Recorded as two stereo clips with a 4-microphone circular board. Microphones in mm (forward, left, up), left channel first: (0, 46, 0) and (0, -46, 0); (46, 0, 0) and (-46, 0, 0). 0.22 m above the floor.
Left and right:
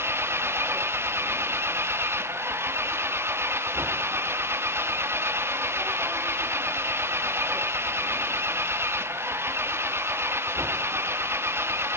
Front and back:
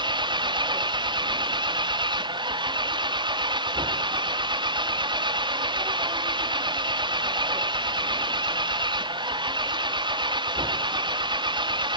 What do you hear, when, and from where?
0.0 s an engine running: 150° right